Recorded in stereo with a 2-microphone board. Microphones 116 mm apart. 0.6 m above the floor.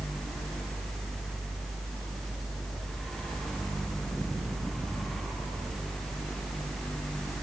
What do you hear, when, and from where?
Only background noise.